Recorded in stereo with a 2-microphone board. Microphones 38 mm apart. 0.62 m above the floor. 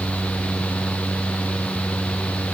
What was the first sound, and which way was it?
Only background noise.